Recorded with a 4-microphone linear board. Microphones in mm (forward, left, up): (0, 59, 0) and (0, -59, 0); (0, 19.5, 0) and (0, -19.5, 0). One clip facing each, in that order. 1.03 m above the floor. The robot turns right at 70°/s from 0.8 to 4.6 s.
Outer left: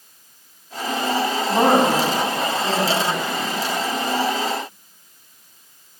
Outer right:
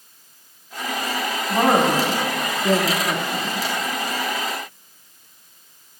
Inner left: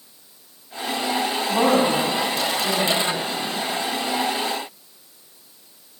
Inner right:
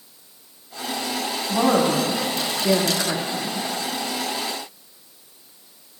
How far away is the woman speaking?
About 1.8 m.